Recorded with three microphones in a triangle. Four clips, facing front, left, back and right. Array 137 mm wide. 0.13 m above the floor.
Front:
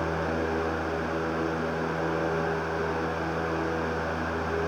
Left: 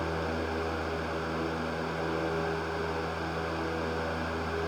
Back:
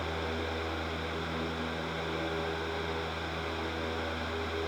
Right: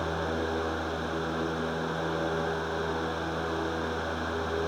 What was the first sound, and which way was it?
Only background noise.